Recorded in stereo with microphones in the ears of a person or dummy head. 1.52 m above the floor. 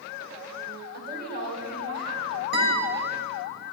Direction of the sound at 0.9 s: 60° right (ahead or behind).